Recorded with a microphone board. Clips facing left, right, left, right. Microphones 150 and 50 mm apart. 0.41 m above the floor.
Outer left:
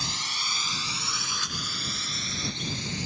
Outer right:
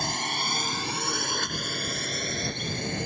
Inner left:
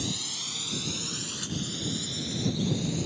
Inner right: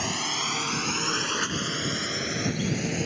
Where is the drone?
50° right (ahead or behind); by 3.1 s 55° right (ahead or behind).